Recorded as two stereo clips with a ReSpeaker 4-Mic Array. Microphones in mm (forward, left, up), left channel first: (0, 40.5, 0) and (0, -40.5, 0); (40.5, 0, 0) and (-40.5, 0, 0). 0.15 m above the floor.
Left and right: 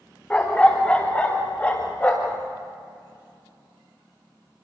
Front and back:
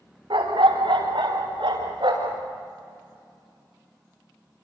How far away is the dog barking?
About 6 m.